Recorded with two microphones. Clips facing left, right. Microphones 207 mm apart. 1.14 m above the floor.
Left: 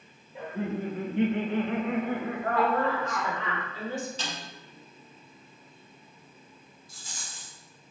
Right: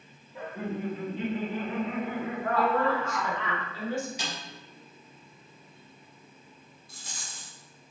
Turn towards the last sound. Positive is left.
turn(degrees=-60)  # may be behind; listen again after turning